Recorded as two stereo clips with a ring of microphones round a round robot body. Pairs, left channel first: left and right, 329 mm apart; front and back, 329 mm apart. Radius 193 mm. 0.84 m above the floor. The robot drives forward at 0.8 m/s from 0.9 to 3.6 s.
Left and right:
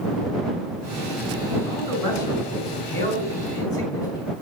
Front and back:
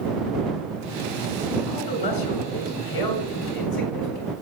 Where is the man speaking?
10° left, 6.5 m.